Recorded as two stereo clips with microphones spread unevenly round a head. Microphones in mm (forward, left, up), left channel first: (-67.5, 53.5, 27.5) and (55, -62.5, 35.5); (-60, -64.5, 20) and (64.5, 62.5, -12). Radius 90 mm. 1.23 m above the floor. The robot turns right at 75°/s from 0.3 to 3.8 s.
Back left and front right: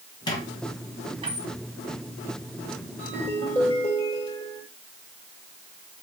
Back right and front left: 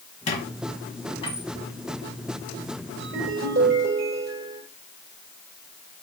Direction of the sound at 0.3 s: 165° right.